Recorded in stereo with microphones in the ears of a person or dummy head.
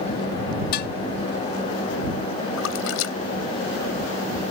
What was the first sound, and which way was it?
Dishes clattering, 55° left (ahead or behind).